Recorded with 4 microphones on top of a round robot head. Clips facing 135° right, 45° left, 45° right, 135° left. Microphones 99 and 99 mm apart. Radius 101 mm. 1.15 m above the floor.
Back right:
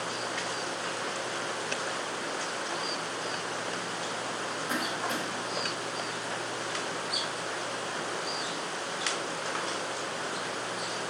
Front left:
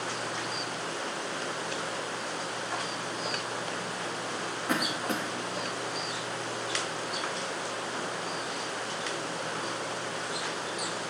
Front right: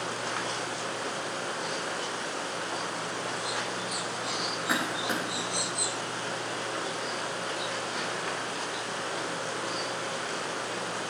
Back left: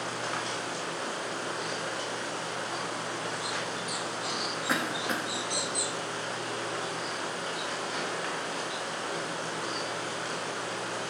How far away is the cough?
About 0.7 m.